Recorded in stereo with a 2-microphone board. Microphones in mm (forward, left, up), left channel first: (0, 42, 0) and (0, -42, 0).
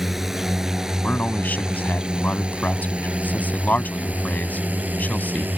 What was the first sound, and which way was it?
A drone, 5° right (ahead or behind).